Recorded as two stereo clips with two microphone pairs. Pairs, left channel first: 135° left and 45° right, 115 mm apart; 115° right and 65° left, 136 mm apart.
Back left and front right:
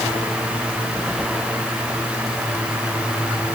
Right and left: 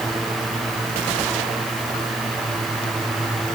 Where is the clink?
No clink in this recording.